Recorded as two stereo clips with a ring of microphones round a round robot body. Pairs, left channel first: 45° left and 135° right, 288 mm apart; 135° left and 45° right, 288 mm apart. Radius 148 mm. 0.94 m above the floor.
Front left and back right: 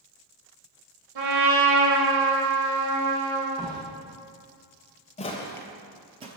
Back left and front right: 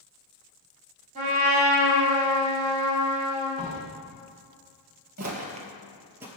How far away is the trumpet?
About 2.5 m.